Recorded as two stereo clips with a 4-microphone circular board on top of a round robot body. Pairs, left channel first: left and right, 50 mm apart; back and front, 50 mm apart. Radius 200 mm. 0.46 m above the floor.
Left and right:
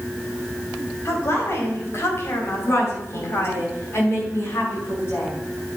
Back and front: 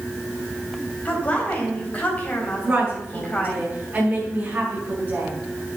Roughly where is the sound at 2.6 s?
Ahead left.